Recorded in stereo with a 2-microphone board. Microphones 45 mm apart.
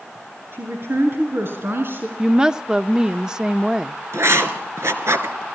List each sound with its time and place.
0.5 s a woman speaking: 60° right (ahead or behind), 6.5 m; by 2.1 s 55° right (ahead or behind), 4.5 m
2.2 s a woman speaking: 15° right (ahead or behind), 0.7 m
4.1 s writing: 85° right, 2.5 m